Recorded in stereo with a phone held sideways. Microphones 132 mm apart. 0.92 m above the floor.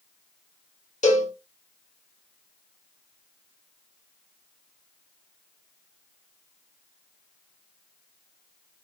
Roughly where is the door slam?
No door slam in this recording.